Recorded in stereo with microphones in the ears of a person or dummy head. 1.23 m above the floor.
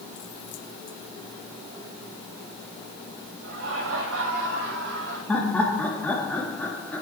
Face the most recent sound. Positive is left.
turn(degrees=10)  # may be behind; listen again after turning